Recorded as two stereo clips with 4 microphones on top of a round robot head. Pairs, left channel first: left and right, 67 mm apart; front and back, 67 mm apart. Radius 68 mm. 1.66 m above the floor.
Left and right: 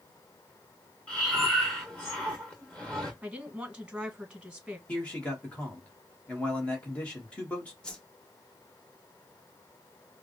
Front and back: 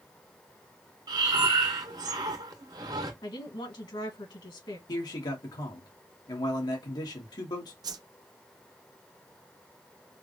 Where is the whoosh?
170° left, 0.7 m.